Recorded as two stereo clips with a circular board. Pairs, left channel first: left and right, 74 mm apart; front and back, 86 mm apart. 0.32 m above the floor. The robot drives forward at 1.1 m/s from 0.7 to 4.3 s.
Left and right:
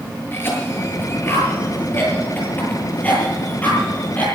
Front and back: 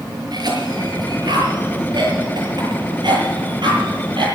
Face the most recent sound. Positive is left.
turn(degrees=160)